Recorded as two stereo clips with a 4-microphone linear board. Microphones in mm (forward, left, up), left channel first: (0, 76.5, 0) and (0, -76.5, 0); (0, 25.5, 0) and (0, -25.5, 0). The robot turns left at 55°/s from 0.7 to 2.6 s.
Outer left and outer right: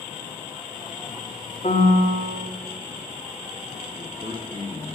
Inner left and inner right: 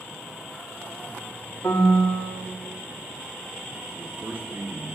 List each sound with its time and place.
1.6 s a piano: 125° left, 1.3 m; by 2.5 s 80° left, 1.3 m
4.0 s a man speaking: 35° right (ahead or behind), 1.1 m